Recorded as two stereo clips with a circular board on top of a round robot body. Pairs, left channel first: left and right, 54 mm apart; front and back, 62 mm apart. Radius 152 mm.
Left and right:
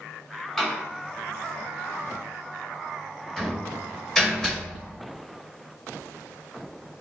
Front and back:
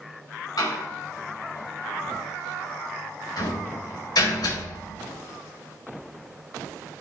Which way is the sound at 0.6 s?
10° left.